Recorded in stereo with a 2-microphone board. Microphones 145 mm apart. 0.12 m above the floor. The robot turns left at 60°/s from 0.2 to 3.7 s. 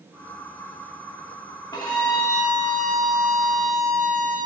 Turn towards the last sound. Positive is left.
turn(degrees=-85)